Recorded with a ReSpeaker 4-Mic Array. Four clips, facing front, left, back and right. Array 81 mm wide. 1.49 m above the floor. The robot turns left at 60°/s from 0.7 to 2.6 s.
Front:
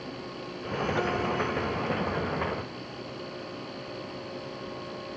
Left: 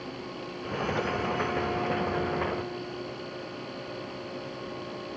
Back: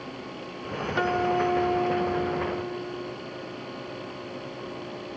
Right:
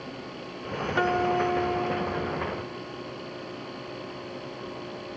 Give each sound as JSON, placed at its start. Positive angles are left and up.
{"t": 1.0, "sound": "a guitar", "azimuth_deg": -115}